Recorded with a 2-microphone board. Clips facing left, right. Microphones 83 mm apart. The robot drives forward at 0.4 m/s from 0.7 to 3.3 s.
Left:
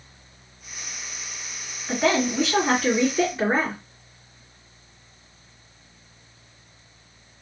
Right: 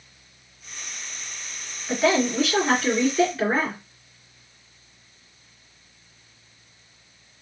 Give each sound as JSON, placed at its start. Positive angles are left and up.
{"t": 1.9, "sound": "a woman speaking", "side_deg": 35, "distance_m": 1.9}